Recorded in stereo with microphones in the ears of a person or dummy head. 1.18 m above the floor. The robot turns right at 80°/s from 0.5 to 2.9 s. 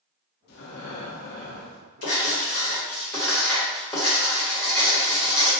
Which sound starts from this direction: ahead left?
Breathing, at 0.5 s.